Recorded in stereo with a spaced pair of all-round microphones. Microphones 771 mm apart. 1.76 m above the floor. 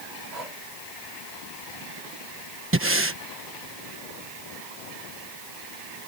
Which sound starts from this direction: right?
Breathing, at 0.3 s.